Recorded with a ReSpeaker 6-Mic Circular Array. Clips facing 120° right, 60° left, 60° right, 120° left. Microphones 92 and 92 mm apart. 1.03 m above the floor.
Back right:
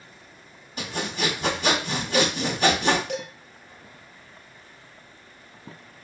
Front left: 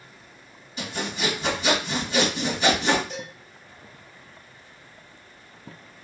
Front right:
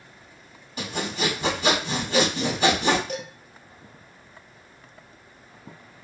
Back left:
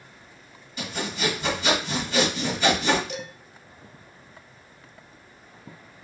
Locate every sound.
0.8 s sawing: 90° right, 1.6 m
3.1 s dishes clattering: 105° right, 0.6 m